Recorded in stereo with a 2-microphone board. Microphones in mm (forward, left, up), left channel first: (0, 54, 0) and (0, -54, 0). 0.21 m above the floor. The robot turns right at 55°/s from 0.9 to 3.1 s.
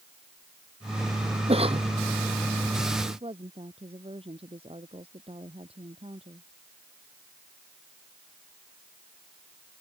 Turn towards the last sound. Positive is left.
turn(degrees=-65)  # may be behind; listen again after turning